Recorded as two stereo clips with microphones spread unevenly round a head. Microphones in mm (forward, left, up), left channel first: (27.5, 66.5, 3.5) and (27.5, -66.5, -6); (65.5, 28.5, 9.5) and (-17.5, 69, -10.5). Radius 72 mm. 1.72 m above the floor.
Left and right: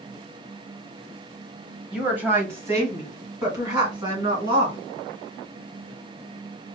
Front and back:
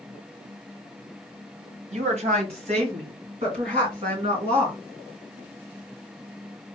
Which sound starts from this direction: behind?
A woman speaking, at 1.9 s.